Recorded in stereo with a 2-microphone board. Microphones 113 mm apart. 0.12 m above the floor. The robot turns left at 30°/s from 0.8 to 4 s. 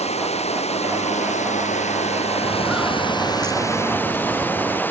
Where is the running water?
115° left; by 4.9 s 15° left.